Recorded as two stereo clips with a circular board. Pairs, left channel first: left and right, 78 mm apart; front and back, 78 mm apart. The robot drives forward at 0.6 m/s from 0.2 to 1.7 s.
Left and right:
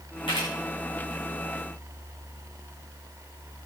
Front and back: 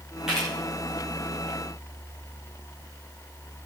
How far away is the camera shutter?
About 9.5 m.